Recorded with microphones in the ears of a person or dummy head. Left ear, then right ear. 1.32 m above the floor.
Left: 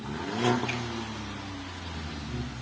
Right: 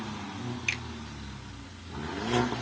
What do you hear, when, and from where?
0.7 s a finger snap: 75° right (ahead or behind), 2.5 m